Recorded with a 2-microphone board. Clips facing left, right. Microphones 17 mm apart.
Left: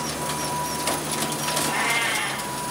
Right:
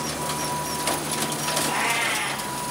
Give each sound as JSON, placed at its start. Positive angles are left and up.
{"t": 1.7, "sound": "a cat meowing", "side_deg": 0, "distance_m": 1.4}